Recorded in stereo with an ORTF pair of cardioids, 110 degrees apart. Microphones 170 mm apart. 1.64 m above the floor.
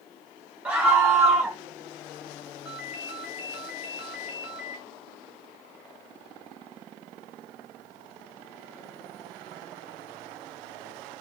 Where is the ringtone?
10° right, 1.6 m.